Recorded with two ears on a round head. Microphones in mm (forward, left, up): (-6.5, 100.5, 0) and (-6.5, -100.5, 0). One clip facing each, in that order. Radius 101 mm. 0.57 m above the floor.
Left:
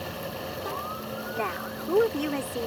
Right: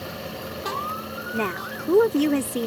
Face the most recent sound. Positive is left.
turn(degrees=-45)  # may be behind; listen again after turning